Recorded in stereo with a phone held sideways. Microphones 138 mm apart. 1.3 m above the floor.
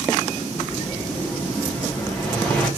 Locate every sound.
0.6 s an explosion: 5° left (ahead or behind), 1.1 m